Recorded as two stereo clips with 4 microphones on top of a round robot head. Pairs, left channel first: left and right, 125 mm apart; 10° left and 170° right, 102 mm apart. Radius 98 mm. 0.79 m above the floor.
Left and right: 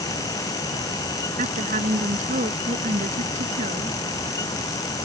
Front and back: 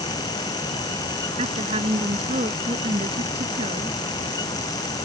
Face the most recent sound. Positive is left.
turn(degrees=-130)